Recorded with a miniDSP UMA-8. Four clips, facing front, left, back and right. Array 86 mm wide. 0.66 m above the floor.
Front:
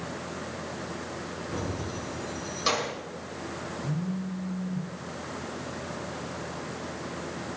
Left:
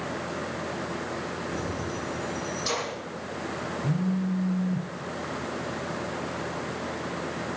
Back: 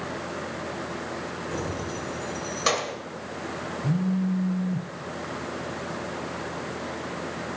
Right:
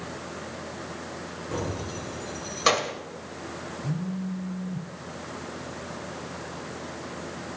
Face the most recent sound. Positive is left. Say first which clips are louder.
# left 4 dB, back 9 dB
turn(degrees=170)